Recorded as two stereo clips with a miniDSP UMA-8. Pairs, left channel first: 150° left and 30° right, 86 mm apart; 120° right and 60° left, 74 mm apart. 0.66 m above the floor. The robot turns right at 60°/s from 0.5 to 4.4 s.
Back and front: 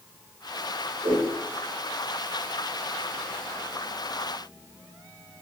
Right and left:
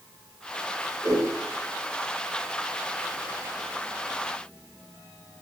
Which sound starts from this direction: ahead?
A whoosh, at 1.0 s.